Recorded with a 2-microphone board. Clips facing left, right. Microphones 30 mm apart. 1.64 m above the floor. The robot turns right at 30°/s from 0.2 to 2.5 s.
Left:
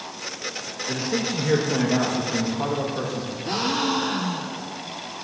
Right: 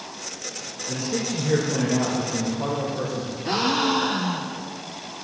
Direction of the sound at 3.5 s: 10° right (ahead or behind).